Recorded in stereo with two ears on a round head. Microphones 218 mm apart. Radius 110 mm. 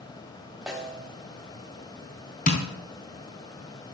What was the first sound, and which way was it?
A snare drum, centre (ahead or behind).